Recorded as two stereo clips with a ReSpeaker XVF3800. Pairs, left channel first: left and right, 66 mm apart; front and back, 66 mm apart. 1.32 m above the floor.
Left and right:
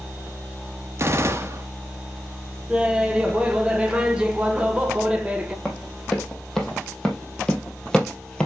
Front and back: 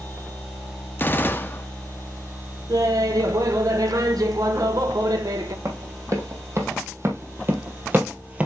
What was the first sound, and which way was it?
A gunshot, 50° right.